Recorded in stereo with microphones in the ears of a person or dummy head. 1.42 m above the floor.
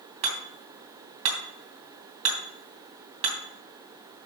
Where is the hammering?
35° right (ahead or behind), 2.5 m.